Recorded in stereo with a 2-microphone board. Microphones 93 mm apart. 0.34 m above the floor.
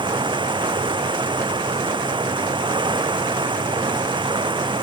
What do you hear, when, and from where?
0.0 s running water: 60° right (ahead or behind)